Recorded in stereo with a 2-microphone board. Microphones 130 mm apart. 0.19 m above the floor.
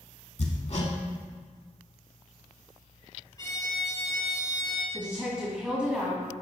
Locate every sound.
0.4 s hammering: 55° left (ahead or behind), 0.7 m
3.4 s a violin: 30° left (ahead or behind), 1.2 m
4.9 s a woman speaking: 5° right (ahead or behind), 1.5 m